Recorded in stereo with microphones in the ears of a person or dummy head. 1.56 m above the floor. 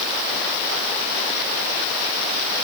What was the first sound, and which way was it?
Only background noise.